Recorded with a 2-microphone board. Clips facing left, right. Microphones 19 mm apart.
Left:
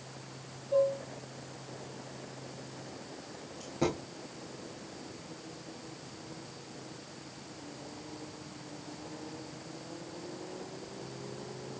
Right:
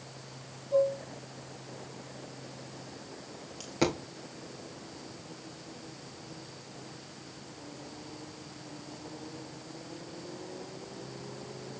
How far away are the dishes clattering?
About 4 m.